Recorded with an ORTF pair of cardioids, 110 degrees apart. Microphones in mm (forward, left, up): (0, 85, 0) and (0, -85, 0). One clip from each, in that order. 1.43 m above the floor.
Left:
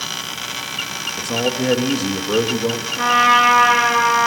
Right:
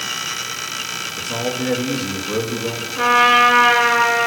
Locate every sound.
1.2 s a man speaking: 30° left, 3 m
3.0 s a trumpet: 5° right, 7.5 m